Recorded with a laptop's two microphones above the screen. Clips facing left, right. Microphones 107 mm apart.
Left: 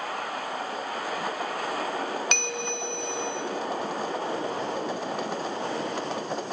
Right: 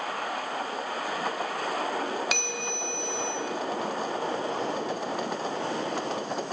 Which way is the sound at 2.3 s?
5° right (ahead or behind).